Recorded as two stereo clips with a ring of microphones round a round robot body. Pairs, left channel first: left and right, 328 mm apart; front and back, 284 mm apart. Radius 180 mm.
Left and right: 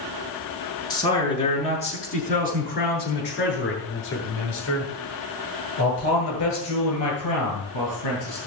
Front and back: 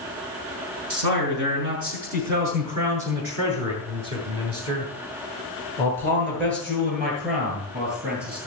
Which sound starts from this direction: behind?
A man speaking, at 0.9 s.